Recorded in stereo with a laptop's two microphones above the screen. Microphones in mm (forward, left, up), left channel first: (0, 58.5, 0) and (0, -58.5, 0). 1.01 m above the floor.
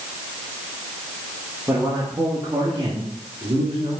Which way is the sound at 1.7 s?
25° right (ahead or behind).